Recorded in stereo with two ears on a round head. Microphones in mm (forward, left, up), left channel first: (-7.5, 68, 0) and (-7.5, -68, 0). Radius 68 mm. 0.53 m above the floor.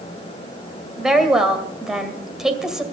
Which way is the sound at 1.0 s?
5° right (ahead or behind).